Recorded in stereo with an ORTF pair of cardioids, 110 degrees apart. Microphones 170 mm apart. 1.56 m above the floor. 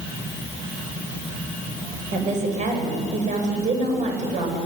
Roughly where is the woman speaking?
Ahead right.